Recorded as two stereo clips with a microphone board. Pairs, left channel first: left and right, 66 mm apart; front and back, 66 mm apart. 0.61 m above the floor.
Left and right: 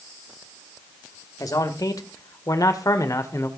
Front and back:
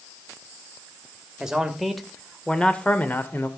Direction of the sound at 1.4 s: 100° left.